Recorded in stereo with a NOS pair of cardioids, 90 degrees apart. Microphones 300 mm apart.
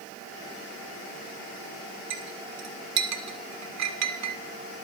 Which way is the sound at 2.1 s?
65° right.